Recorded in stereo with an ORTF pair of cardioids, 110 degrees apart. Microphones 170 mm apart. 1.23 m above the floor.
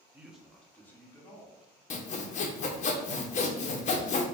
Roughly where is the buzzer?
I don't hear a buzzer.